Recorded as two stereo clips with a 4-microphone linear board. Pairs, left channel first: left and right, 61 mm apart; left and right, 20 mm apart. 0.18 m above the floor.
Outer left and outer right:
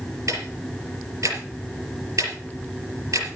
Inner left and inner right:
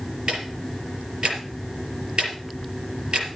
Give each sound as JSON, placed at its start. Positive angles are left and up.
{"t": 0.3, "sound": "ticking", "side_deg": -60, "distance_m": 4.5}